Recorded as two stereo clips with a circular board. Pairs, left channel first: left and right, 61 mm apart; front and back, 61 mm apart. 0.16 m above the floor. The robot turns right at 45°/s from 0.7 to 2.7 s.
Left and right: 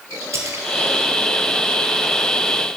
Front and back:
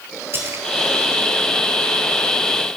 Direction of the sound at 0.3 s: 125° right.